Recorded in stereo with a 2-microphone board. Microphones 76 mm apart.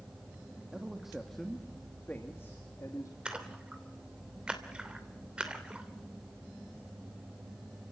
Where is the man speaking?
10° right (ahead or behind), 2 m; by 3.1 s 45° left (ahead or behind), 2.5 m.